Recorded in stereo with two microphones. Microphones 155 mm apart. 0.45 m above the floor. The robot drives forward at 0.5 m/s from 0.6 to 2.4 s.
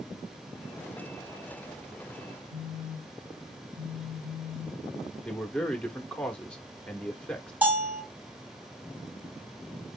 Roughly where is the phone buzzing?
Right.